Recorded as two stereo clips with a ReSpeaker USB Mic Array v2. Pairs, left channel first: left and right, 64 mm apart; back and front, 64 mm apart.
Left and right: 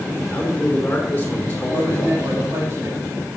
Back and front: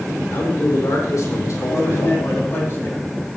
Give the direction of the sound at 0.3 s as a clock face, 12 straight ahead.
7 o'clock.